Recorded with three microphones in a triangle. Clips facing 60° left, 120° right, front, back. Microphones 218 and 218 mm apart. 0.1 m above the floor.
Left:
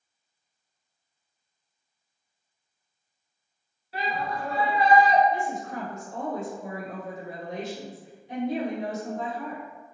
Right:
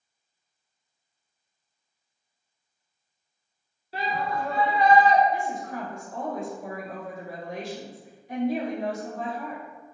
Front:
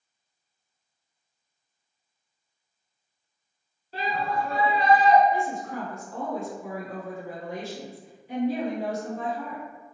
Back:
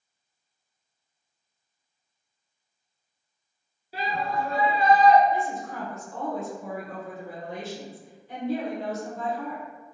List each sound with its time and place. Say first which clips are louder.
3.9 s a shout: right 2 dB, front 1 dB; 110° right, 1.3 m; by 5.2 s straight behind, 1.3 m
5.3 s a woman speaking: even, front 1 dB; 60° left, 1.5 m